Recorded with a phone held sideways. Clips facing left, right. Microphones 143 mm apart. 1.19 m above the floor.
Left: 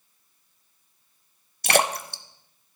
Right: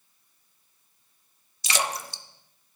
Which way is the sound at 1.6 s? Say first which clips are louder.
Left 7 dB; 55° left (ahead or behind).